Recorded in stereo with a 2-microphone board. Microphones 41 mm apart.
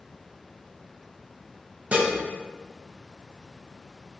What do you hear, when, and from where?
1.9 s dishes clattering: 35° right (ahead or behind), 0.9 m